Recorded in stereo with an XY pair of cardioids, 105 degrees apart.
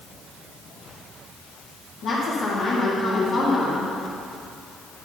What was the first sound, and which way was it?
A woman speaking, 70° left.